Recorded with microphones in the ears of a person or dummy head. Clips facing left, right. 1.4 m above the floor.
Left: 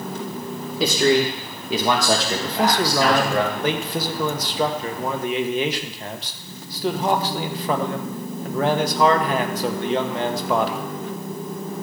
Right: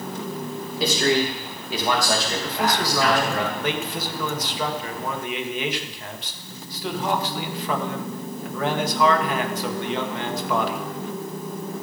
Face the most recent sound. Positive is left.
turn(degrees=40)  # may be behind; listen again after turning